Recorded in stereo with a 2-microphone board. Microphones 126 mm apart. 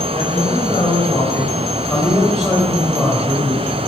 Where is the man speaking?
40° left (ahead or behind), 5.5 m; by 3.9 s 20° right (ahead or behind), 5.5 m.